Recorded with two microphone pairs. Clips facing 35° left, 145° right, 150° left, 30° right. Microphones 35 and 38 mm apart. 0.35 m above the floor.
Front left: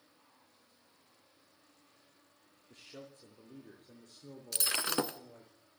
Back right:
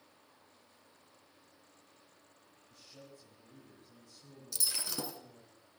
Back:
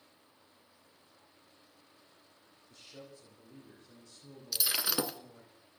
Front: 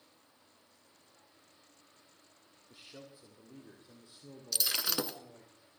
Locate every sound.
2.7 s a man speaking: 40° left, 3 m; by 5.5 s 35° left, 5 m
4.5 s breaking glass: 65° left, 0.8 m